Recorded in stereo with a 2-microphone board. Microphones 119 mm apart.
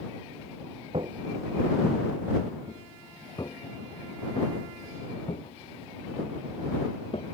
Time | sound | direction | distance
0.9 | footsteps | 50° right (ahead or behind) | ?